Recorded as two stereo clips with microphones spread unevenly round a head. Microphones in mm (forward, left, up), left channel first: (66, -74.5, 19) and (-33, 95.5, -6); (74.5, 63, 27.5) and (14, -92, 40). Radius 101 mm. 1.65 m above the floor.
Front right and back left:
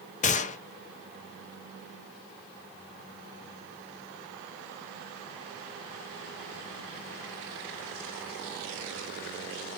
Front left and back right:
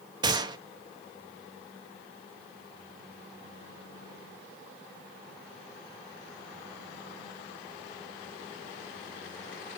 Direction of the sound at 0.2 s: 65° right.